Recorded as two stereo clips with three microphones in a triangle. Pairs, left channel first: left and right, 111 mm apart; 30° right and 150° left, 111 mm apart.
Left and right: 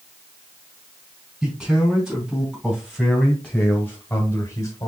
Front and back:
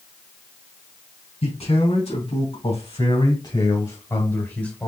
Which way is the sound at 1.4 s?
5° right.